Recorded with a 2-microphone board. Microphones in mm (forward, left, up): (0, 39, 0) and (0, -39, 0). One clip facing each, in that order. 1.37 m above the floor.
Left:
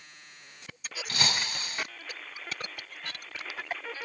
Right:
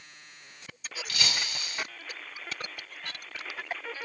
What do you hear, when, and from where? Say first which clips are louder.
1.1 s breaking glass: left 3 dB; 40° left (ahead or behind), 1.4 m